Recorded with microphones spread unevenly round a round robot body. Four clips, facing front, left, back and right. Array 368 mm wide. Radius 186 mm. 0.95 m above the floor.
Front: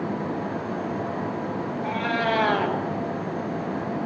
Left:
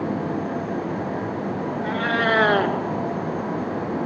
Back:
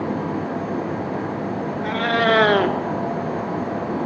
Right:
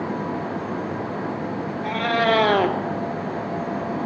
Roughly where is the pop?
I don't hear a pop.